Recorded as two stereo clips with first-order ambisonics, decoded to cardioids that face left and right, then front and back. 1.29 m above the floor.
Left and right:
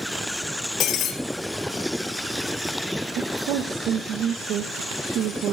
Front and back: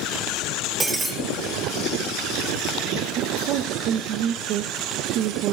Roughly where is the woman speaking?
Behind right.